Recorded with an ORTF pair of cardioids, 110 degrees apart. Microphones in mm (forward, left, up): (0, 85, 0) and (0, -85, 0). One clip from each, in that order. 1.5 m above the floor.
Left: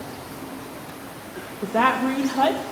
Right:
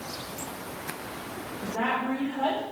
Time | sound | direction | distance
1.6 | a woman speaking | 65° left | 0.9 m